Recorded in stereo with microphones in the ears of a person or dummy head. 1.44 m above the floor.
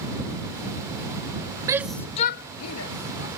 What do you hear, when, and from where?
1.7 s a shout: 20° right (ahead or behind); by 3.3 s 75° left (ahead or behind)